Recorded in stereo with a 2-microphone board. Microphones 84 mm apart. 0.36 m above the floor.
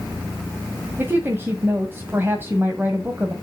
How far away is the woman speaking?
About 1.7 m.